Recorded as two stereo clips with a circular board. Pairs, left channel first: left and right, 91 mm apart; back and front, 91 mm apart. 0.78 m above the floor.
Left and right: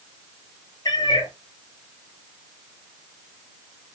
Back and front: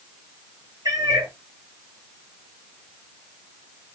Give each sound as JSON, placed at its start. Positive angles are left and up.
{"t": 0.8, "sound": "a cat meowing", "azimuth_deg": 50, "distance_m": 1.4}